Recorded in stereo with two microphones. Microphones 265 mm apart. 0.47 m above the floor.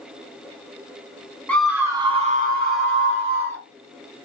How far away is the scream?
About 0.9 m.